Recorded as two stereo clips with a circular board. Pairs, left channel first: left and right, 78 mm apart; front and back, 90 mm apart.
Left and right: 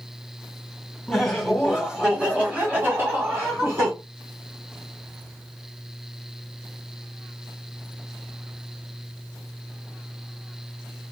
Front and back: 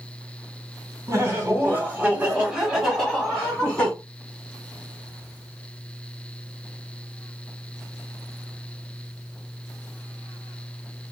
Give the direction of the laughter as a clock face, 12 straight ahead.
6 o'clock.